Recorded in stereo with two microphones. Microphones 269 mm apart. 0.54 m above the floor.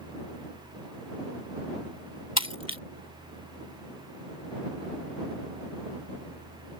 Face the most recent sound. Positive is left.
turn(degrees=70)  # may be behind; listen again after turning